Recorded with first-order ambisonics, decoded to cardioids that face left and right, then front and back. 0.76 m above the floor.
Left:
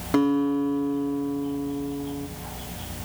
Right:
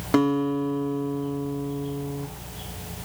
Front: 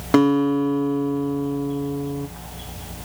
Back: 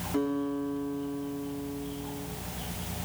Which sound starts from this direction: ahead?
A guitar, at 0.1 s.